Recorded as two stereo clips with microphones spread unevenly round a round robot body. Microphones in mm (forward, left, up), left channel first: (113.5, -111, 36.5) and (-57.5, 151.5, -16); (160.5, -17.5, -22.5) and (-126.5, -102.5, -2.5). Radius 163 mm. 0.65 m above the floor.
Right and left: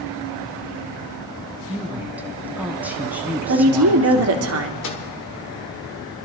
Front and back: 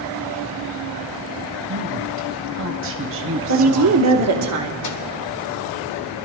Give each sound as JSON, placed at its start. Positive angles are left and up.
{"t": 1.7, "sound": "a woman speaking", "azimuth_deg": -170, "distance_m": 1.1}
{"t": 3.5, "sound": "a woman speaking", "azimuth_deg": 155, "distance_m": 1.4}
{"t": 4.8, "sound": "a microwave", "azimuth_deg": -5, "distance_m": 1.8}